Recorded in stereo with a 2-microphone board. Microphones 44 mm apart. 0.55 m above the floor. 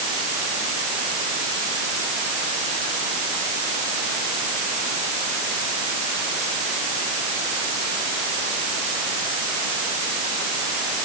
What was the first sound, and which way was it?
Only background noise.